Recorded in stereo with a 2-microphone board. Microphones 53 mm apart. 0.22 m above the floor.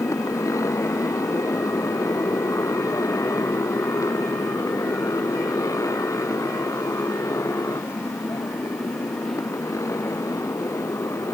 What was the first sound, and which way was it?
A motorcycle, 75° left (ahead or behind).